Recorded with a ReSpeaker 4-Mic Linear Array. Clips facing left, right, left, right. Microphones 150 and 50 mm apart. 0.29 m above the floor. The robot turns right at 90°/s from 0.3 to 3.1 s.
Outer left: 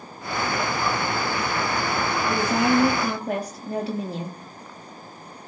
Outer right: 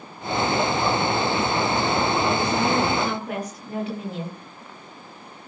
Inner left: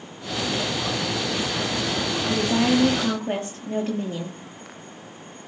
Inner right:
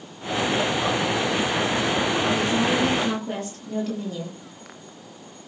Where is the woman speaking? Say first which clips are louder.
Outer left 1 dB, inner left 1 dB; 70° left, 7.5 m; by 4.4 s 145° left, 7.5 m.